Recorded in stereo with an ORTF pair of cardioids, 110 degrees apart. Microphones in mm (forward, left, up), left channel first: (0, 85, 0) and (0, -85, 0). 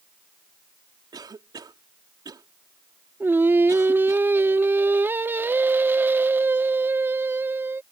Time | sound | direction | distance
1.1 | a cough | 25° right | ?
3.2 | singing | 15° right | ?